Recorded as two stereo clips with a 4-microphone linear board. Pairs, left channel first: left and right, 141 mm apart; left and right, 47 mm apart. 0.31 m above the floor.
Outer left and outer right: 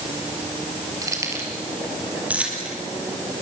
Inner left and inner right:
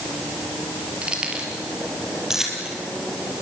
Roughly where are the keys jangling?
Right.